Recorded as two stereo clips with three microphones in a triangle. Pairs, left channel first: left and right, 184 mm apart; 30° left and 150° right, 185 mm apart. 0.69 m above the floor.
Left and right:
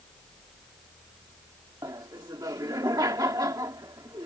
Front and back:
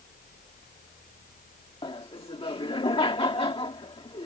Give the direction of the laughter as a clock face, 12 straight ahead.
1 o'clock.